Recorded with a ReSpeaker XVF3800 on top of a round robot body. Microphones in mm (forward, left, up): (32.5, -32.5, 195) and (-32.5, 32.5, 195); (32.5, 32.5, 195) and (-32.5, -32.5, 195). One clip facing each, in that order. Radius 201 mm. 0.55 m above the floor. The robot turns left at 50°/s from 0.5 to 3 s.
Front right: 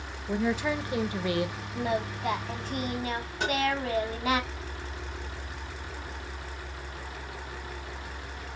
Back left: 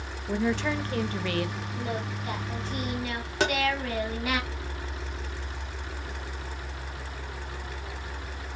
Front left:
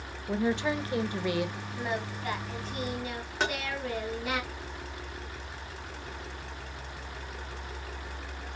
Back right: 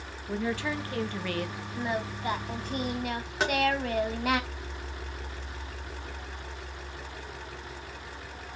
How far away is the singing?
About 0.6 m.